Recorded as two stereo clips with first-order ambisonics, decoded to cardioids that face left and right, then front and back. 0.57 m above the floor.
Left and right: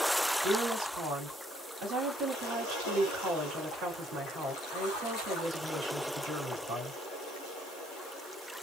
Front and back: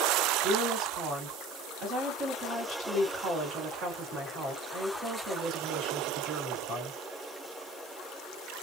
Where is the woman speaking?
145° right, 1.7 m.